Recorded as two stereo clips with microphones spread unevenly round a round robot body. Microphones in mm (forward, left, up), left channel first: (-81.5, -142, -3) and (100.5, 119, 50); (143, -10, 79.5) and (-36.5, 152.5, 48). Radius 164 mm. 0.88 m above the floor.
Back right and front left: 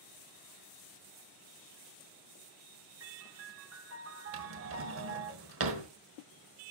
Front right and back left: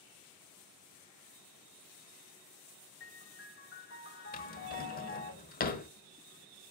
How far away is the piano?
About 1.9 m.